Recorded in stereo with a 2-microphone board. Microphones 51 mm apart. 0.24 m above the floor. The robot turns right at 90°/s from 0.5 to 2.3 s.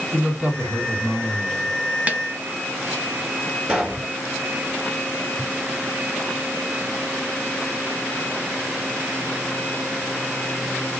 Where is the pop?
20° right (ahead or behind), 1.7 m.